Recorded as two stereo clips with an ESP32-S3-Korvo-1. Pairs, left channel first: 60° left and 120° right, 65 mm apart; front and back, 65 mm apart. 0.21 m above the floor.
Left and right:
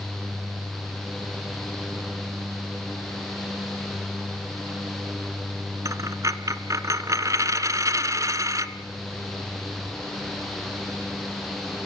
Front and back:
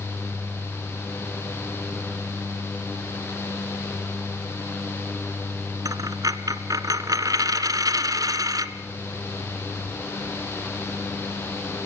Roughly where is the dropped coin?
Behind right.